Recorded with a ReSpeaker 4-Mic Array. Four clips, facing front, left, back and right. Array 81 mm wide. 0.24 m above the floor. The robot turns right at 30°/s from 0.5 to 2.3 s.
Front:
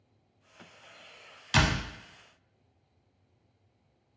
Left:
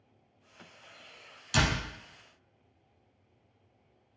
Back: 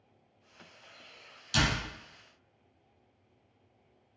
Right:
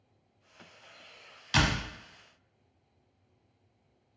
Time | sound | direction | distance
1.5 | a door slam | 35° right | 0.9 m